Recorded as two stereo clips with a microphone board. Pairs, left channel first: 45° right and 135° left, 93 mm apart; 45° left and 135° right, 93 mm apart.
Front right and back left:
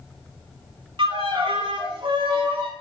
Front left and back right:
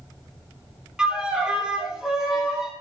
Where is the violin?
145° left, 0.5 m.